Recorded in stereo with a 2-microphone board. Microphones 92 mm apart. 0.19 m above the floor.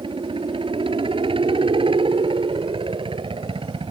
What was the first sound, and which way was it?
A helicopter, 65° right (ahead or behind).